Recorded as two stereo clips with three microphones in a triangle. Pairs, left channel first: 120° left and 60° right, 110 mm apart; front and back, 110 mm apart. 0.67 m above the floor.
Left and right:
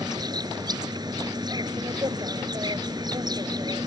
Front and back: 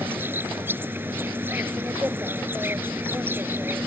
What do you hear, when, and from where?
0.0 s an insect: 110° right